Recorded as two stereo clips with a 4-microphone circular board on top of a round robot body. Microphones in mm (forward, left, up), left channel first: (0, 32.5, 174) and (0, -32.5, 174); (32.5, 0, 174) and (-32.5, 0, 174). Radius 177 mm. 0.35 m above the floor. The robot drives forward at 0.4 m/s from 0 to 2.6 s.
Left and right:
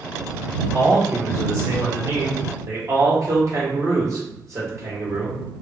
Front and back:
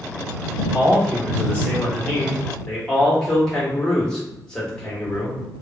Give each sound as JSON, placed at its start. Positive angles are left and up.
{"t": 0.7, "sound": "a man speaking", "azimuth_deg": -50, "distance_m": 2.0}